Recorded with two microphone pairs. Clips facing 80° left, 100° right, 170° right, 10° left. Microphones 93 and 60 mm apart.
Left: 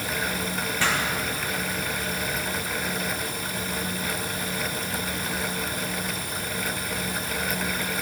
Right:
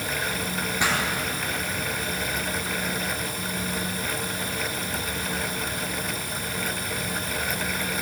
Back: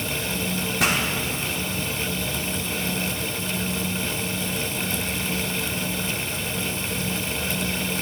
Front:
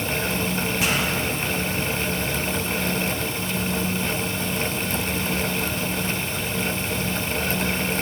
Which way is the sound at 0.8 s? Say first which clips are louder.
Even, back 3 dB; 170° right.